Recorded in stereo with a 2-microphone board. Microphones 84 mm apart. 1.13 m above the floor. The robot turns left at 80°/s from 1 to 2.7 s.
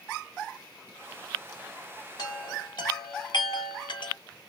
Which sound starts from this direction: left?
A chime, at 2.2 s.